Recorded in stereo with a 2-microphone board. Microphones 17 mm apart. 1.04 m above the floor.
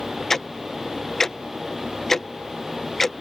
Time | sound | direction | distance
0.3 | ticking | 25° left (ahead or behind) | ?